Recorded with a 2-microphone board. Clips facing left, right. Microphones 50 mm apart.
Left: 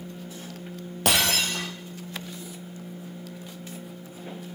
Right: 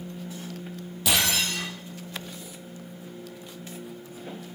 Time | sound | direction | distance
1.1 | breaking glass | 60° left (ahead or behind) | 3.5 m